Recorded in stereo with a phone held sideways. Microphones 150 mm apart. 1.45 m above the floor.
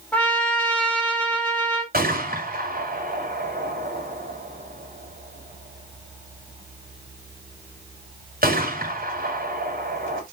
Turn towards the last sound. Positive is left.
turn(degrees=-70)  # may be behind; listen again after turning